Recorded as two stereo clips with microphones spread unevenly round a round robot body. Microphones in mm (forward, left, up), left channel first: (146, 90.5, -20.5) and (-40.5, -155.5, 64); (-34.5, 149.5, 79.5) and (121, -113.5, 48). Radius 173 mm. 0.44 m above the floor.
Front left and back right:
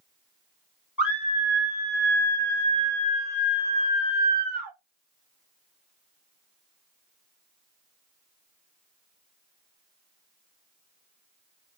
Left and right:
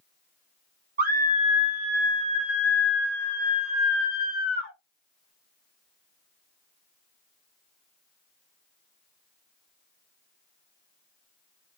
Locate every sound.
1.0 s a scream: 25° right, 1.6 m; by 4.7 s 160° left, 1.6 m